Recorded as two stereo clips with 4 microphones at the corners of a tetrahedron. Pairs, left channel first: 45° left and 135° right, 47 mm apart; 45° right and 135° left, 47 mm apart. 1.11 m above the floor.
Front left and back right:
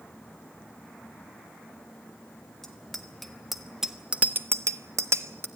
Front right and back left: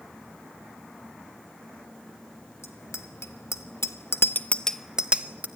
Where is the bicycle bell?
35° right, 2 m; by 5.5 s 170° right, 1.1 m.